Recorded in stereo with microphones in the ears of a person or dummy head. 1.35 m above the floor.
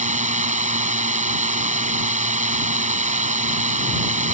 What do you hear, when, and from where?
0.0 s a drone: 35° right (ahead or behind)